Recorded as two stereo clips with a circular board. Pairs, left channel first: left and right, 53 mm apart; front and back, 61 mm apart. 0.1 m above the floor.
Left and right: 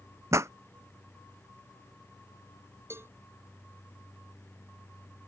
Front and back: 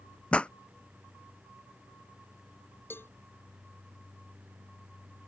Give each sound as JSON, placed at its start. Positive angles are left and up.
{"t": 0.3, "sound": "a pop", "azimuth_deg": -70}
{"t": 2.9, "sound": "a cowbell", "azimuth_deg": -50}